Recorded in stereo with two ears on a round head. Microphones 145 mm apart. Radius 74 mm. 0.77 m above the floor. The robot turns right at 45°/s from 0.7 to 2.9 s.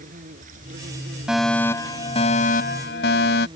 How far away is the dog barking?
No dog barking in this recording.